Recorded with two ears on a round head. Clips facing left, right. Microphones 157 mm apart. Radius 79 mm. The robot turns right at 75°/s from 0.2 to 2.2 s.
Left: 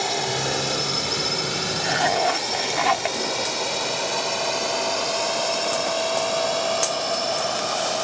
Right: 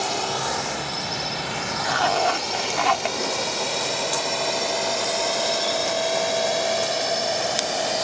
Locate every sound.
0.0 s a drone: 5° left (ahead or behind); by 8.0 s 20° right (ahead or behind)
1.8 s a zipper: 30° left (ahead or behind); by 3.2 s 5° left (ahead or behind)